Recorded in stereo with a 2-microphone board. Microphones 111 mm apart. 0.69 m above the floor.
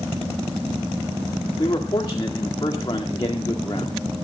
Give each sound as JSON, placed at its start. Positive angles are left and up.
{"t": 1.6, "sound": "a man speaking", "side_deg": 40, "distance_m": 1.8}